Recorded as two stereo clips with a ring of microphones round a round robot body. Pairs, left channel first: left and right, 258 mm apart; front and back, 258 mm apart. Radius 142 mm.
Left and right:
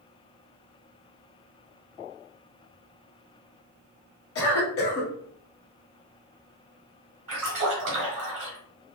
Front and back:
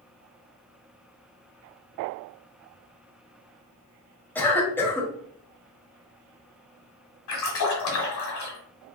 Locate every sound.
4.3 s a cough: 80° left, 1.3 m
7.3 s a splash: 25° right, 1.3 m